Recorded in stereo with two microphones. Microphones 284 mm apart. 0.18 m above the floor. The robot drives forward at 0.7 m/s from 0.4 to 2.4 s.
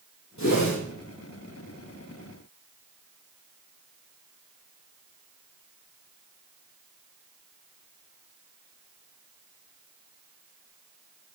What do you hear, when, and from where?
0.4 s a whoosh: 70° left (ahead or behind), 4 m